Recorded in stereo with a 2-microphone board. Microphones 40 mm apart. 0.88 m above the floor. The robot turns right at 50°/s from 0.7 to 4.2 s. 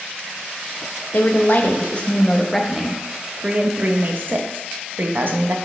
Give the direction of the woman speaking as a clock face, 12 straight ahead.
9 o'clock.